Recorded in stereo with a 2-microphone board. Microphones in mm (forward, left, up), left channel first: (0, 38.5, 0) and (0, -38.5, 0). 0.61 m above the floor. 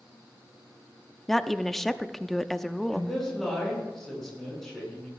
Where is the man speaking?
5° left (ahead or behind), 7 m.